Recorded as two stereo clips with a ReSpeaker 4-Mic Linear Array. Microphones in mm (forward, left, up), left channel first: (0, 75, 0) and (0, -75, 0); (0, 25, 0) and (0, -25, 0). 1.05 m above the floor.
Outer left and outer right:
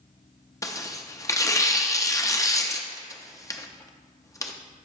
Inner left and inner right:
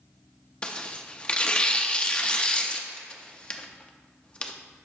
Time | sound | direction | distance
0.6 | tearing paper | 20° left (ahead or behind) | 0.5 m